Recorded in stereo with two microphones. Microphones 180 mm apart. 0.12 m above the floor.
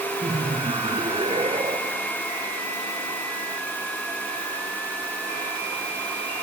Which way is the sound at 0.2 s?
25° right (ahead or behind).